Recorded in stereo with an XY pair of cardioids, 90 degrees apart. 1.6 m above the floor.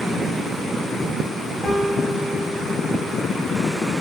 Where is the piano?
35° left, 3.5 m.